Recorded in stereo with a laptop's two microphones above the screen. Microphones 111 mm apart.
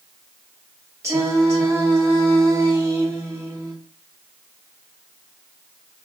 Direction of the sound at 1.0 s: 30° right (ahead or behind).